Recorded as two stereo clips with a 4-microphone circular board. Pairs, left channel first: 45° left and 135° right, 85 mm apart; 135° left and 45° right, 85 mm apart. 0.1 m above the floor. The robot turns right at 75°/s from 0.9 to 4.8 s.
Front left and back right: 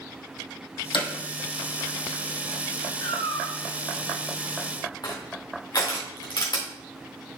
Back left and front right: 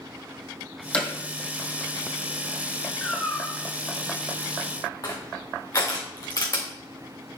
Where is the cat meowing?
55° left, 1.5 m; by 3.6 s 95° left, 1.5 m.